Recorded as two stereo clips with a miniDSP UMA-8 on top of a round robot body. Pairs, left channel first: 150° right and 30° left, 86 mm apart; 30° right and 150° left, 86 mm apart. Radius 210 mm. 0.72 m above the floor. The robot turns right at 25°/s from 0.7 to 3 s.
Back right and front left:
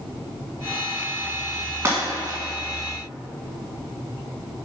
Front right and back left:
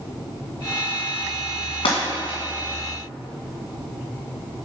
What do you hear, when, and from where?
1.9 s breaking glass: 35° right, 1.5 m; by 2.4 s 20° right, 1.5 m